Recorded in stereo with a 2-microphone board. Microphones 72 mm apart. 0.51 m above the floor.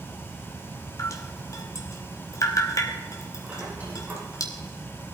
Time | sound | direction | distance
1.0 | dripping | 50° left (ahead or behind) | 2 m
3.4 | a squeak | 20° right (ahead or behind) | 7 m